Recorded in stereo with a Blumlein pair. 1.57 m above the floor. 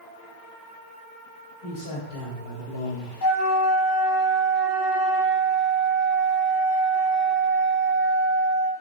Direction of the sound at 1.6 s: 60° left.